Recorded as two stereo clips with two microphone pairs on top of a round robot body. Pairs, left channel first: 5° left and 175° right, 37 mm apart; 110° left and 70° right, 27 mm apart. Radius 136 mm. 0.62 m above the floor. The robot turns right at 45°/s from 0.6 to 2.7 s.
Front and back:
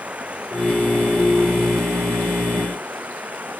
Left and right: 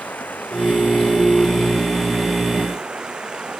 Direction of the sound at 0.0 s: 130° left.